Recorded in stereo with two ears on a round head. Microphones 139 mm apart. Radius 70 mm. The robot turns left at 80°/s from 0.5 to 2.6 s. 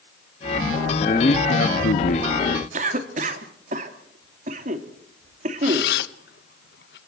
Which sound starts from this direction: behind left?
A man speaking, at 1.0 s.